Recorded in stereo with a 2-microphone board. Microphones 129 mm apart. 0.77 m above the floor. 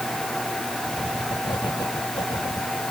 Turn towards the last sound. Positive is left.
turn(degrees=35)  # may be behind; listen again after turning